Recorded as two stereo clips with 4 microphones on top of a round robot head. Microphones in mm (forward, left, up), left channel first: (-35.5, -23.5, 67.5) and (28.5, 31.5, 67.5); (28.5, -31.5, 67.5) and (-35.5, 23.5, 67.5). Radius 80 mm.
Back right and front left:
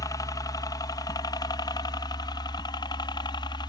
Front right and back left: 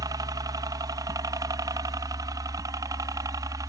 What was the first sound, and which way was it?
A helicopter, straight behind.